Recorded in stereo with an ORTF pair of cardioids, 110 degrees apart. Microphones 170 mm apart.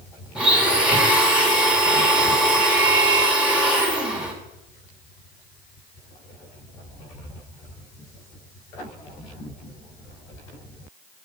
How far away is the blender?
About 1.4 m.